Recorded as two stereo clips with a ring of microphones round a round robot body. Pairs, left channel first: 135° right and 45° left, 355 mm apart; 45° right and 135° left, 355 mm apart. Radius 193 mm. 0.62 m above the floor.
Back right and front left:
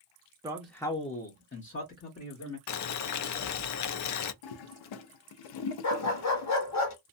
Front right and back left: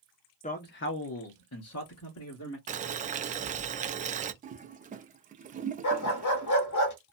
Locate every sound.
0.4 s a man speaking: 15° right, 0.6 m; by 2.6 s 90° right, 1.5 m
2.7 s boiling: 160° right, 0.5 m
4.4 s a toilet flushing: 155° right, 0.5 m
5.8 s a dog barking: 90° right, 0.9 m